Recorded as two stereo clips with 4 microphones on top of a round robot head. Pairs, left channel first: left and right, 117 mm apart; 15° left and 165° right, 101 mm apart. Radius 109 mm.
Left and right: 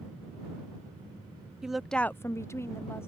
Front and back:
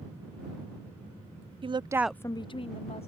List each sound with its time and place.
1.6 s a woman speaking: 175° right; by 3.1 s 20° left